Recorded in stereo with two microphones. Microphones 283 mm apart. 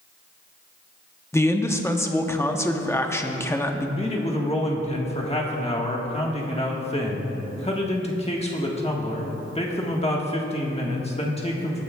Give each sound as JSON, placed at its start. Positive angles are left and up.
{"t": 1.3, "sound": "a man speaking", "side_deg": 10, "distance_m": 0.8}
{"t": 4.0, "sound": "a man speaking", "side_deg": 25, "distance_m": 1.4}